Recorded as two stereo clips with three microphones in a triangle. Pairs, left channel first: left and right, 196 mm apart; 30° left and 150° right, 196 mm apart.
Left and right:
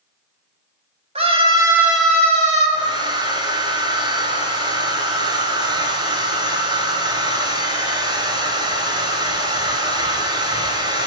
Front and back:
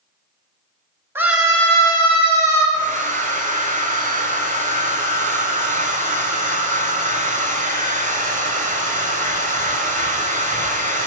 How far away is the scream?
About 1.2 m.